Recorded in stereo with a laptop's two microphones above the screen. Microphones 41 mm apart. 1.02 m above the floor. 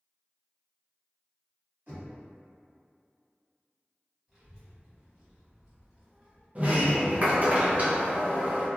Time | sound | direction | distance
1.9 | knocking | 55° right (ahead or behind) | 1.5 m
4.3 | a child speaking | 25° right (ahead or behind) | 1.5 m
6.5 | a sliding door | 40° right (ahead or behind) | 0.5 m